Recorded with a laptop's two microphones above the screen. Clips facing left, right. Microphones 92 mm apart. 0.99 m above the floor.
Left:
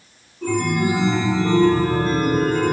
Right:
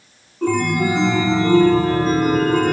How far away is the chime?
About 1.3 m.